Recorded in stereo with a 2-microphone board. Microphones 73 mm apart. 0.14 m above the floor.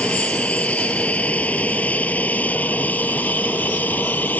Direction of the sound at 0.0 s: 15° left (ahead or behind).